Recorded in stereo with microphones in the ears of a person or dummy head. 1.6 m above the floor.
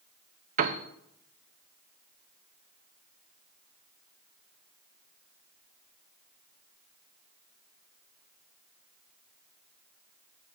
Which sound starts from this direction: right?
A piano, at 0.6 s.